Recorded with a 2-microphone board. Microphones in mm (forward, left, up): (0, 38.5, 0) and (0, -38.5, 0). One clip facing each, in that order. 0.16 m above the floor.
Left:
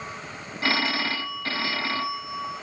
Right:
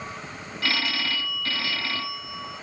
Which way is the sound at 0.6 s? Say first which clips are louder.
Left 3 dB; 30° left (ahead or behind).